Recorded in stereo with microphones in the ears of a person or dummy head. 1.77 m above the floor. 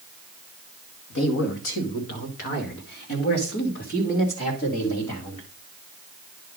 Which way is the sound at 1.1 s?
65° left (ahead or behind).